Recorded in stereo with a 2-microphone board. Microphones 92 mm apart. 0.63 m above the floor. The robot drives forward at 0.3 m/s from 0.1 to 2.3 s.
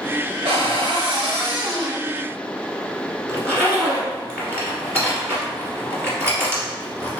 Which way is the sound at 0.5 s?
80° right.